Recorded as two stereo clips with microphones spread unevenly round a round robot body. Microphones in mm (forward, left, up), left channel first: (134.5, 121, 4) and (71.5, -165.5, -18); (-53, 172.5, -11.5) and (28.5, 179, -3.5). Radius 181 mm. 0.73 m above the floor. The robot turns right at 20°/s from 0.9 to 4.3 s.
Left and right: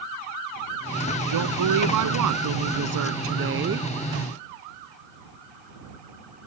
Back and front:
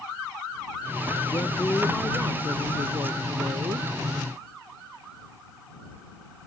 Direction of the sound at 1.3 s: 100° right.